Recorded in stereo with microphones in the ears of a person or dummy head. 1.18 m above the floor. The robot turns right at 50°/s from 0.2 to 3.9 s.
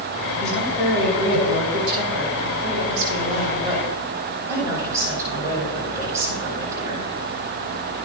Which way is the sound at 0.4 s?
170° left.